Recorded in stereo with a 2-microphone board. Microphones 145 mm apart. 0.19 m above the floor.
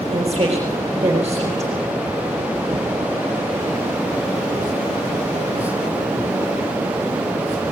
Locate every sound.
0.1 s a woman speaking: 20° right (ahead or behind), 4 m